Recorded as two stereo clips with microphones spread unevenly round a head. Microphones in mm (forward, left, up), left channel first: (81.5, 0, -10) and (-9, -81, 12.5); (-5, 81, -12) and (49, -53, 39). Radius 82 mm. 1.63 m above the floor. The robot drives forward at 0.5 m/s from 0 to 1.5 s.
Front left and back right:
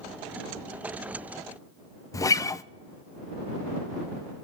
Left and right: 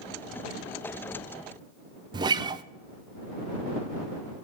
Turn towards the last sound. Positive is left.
turn(degrees=-25)